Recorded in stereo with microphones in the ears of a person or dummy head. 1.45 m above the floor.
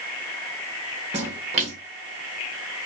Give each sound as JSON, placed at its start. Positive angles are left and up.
{"t": 1.1, "sound": "a splash", "side_deg": -35, "distance_m": 1.1}